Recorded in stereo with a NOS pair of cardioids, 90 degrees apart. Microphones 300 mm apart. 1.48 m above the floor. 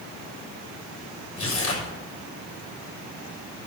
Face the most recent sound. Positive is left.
turn(degrees=45)